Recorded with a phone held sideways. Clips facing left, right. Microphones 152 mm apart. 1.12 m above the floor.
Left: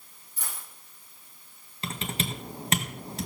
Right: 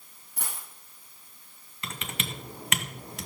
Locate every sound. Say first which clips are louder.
0.4 s a dropped coin: right 2 dB; 65° right (ahead or behind), 4.5 m
1.8 s typing on a keyboard: left 5 dB; 30° left (ahead or behind), 1.9 m